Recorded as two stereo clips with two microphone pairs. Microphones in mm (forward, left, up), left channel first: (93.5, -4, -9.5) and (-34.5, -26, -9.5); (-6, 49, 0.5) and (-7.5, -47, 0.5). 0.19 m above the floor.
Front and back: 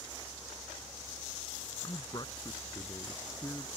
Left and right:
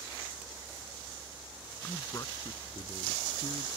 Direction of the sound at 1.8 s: 35° left.